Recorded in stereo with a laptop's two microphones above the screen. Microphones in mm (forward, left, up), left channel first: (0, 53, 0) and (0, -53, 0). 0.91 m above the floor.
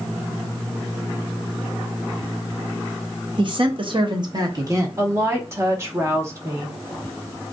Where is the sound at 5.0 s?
25° right (ahead or behind), 0.7 m.